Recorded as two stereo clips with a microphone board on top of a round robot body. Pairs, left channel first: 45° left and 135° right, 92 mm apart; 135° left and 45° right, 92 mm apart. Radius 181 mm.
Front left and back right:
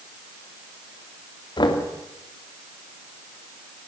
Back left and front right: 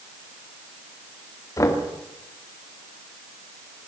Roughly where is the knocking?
Left.